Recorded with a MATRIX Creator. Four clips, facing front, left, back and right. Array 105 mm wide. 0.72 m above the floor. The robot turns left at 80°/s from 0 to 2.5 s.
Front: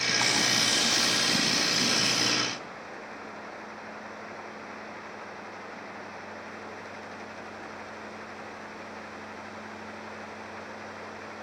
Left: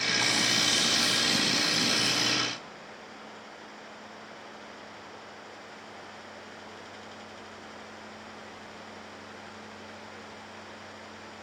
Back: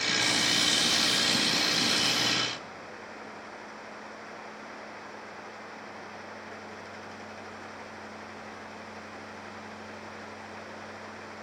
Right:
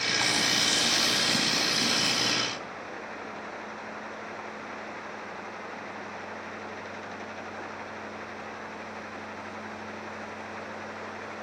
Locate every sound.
0.2 s frying: 20° right, 1.7 m; by 2.3 s 170° left, 1.7 m